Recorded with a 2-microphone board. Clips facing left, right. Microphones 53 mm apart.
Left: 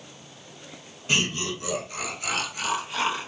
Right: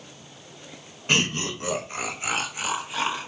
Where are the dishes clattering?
No dishes clattering in this recording.